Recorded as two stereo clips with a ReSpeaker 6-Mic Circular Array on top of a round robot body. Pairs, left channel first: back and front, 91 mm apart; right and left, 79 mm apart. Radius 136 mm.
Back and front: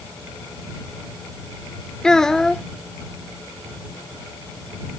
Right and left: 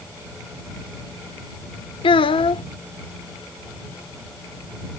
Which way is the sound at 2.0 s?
95° right.